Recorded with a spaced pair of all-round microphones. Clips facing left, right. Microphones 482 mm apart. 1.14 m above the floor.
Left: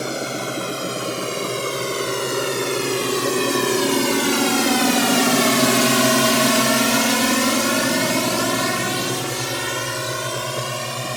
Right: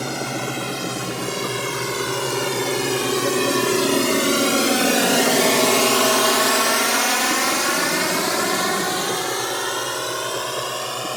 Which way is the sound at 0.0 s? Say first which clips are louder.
Left 1 dB; 15° right (ahead or behind).